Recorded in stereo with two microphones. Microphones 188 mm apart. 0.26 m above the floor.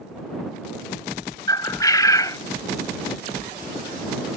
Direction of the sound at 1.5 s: 20° left (ahead or behind).